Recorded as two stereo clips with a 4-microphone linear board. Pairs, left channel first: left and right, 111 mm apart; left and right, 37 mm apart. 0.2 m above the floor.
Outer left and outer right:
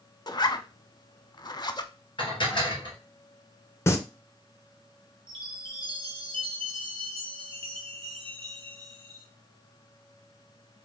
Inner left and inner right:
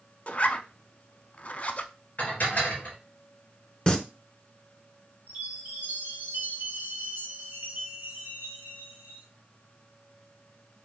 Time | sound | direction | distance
0.3 | a zipper | 40° left (ahead or behind) | 0.5 m
2.2 | dishes clattering | 45° left (ahead or behind) | 2.5 m
3.9 | singing | 25° left (ahead or behind) | 0.7 m
5.3 | a chime | 45° right (ahead or behind) | 1.8 m